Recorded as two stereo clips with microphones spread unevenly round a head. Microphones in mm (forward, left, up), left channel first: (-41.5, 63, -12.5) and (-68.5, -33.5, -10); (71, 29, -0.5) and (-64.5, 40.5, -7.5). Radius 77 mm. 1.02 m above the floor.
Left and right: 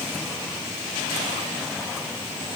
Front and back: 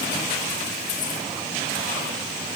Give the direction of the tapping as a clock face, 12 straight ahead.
I don't hear tapping.